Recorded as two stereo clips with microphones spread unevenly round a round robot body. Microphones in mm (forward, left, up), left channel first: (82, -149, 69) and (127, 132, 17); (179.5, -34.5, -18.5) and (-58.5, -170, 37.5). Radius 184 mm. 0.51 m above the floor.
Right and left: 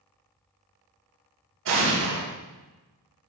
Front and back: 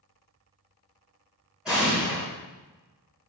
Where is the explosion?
115° left, 1.3 m.